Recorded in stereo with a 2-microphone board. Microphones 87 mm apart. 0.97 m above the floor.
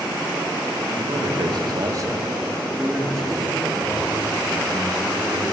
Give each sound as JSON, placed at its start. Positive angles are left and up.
{"t": 1.0, "sound": "a man speaking", "side_deg": -65, "distance_m": 1.6}